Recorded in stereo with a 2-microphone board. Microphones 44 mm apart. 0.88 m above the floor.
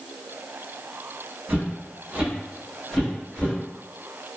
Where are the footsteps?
40° right (ahead or behind), 1.5 m; by 3.5 s 25° left (ahead or behind), 1.5 m.